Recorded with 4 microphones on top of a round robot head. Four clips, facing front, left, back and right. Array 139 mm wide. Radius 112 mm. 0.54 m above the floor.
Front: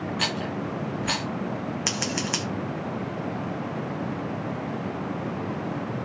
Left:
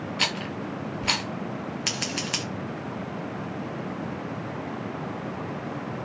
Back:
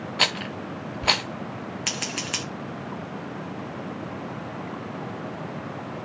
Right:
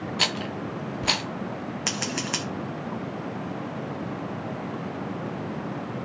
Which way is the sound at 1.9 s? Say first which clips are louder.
Right 2 dB, front 4 dB; 50° right.